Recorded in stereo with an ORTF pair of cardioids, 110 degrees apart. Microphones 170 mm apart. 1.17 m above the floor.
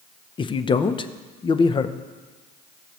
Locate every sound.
0.4 s a man speaking: 30° left, 0.7 m